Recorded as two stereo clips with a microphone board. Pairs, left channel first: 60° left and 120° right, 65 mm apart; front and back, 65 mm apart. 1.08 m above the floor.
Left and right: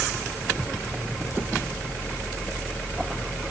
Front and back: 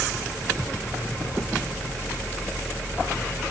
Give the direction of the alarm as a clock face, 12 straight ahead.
No alarm in this recording.